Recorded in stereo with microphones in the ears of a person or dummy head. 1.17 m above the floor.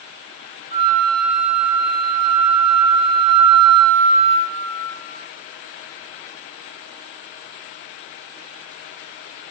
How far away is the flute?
About 0.8 m.